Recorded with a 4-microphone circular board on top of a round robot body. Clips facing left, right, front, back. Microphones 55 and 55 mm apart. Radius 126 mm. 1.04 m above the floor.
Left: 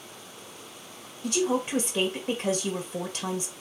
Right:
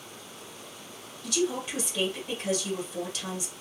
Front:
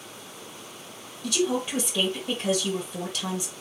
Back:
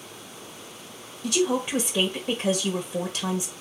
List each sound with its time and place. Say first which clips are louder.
1.2 s a woman speaking: left 3 dB, back 2 dB; 120° left, 1.1 m